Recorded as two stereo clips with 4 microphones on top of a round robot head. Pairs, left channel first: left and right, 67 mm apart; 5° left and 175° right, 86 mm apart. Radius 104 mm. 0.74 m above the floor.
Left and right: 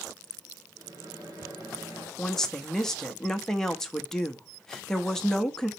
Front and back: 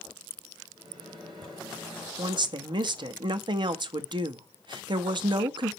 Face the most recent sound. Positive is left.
turn(degrees=170)